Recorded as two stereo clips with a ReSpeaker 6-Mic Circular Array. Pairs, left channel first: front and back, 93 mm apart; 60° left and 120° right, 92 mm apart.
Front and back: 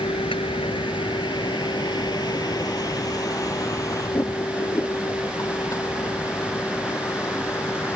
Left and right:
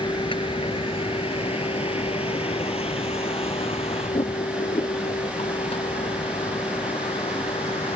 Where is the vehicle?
25° left; by 8.0 s 65° left.